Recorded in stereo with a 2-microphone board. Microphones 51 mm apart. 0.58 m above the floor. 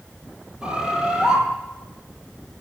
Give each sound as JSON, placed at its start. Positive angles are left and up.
{"t": 0.6, "sound": "a bird", "side_deg": -15, "distance_m": 3.5}